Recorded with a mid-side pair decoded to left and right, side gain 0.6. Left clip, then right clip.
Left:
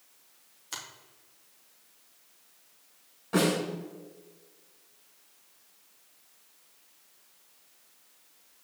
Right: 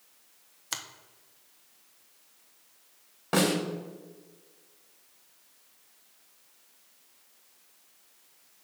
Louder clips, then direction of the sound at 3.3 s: Right 1 dB; 55° right.